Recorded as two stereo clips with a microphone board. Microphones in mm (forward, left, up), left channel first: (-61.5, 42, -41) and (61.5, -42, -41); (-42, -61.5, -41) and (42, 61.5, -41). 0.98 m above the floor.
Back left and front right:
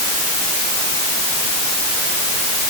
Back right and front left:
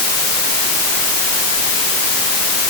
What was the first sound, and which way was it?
Only background noise.